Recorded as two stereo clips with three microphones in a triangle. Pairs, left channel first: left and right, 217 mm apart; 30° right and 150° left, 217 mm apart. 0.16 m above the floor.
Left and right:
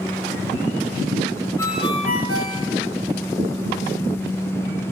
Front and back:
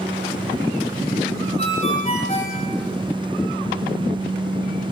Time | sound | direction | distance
1.6 | a ringtone | 90° right | 6 m